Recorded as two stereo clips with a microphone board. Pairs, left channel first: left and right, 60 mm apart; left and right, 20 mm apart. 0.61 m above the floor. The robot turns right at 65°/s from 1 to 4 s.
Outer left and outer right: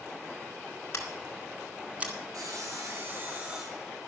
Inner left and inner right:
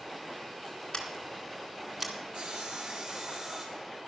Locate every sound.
0.9 s scissors: 45° left (ahead or behind), 2 m; by 2.1 s 30° right (ahead or behind), 2 m
2.3 s sawing: 90° right, 3 m; by 4.0 s 15° left, 3 m